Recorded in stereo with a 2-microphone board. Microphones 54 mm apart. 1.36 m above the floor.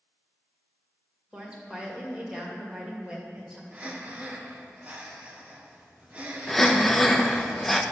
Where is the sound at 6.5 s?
5° left (ahead or behind), 0.5 m.